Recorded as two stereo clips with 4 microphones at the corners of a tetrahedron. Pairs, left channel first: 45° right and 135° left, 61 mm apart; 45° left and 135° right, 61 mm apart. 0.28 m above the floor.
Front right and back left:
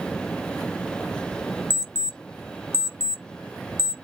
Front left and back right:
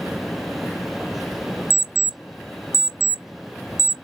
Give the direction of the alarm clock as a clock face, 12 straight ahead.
12 o'clock.